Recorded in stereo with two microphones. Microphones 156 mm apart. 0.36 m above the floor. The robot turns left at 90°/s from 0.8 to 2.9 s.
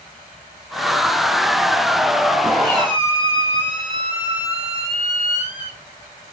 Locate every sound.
2.6 s a squeak: 15° right (ahead or behind), 4.5 m; by 5.8 s 40° right (ahead or behind), 4.5 m